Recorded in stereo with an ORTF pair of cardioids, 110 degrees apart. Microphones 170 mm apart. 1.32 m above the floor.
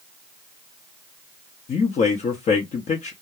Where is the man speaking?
45° left, 0.8 m.